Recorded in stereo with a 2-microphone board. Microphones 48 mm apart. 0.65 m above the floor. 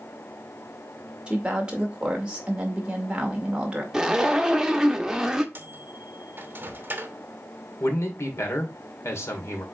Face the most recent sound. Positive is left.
turn(degrees=70)  # may be behind; listen again after turning